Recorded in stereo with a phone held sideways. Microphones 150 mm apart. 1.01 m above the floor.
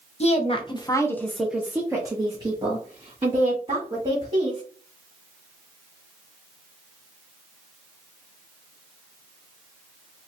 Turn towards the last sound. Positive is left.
turn(degrees=-45)  # may be behind; listen again after turning